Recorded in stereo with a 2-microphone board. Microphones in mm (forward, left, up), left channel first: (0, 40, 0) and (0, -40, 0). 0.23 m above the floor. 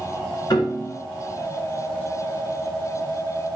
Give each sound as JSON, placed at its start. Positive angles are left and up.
{"t": 0.5, "sound": "a piano", "side_deg": 65, "distance_m": 3.0}